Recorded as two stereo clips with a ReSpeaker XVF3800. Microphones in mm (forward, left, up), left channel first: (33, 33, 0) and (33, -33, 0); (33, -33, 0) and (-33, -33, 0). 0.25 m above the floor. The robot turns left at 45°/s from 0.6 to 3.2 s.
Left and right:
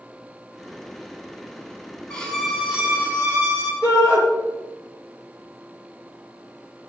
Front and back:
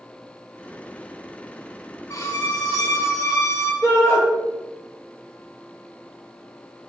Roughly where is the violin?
Ahead.